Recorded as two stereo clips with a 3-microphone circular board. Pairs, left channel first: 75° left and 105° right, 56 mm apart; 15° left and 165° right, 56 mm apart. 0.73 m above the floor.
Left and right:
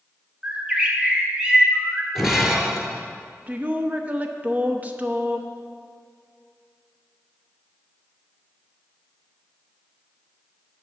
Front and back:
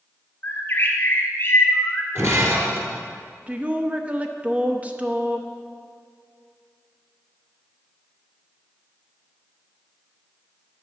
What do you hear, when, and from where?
0.4 s a bird: 35° right, 1.4 m
2.1 s breaking glass: 170° left, 1.5 m
3.5 s a woman speaking: 130° right, 0.7 m